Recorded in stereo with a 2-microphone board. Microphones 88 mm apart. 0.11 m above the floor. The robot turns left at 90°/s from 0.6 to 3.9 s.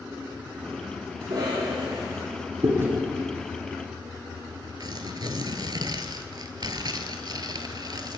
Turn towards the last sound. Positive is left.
turn(degrees=-55)  # may be behind; listen again after turning